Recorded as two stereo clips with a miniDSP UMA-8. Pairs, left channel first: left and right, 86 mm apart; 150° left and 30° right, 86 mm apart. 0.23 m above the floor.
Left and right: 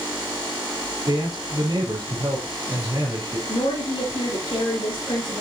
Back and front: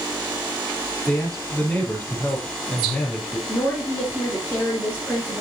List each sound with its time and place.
1.1 s a man speaking: 130° right, 4 m
3.5 s a woman speaking: 85° left, 3.5 m